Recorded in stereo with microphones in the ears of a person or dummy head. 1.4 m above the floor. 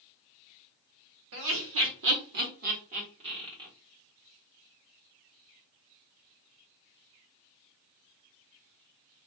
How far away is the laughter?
About 1.0 m.